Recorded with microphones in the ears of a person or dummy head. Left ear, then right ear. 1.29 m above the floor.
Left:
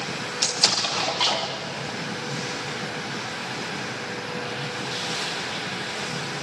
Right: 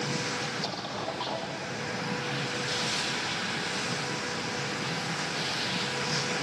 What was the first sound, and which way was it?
An explosion, 55° left (ahead or behind).